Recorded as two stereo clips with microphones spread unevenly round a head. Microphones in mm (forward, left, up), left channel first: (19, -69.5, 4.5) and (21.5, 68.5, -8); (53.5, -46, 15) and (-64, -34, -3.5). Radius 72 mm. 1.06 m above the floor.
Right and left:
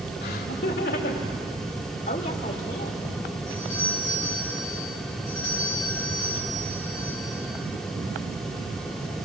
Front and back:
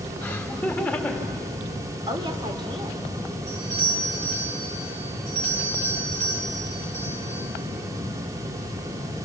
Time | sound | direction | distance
0.2 | laughter | 80° right | 3 m
2.1 | a woman speaking | 135° right | 3.5 m
3.5 | a doorbell | 165° right | 6.5 m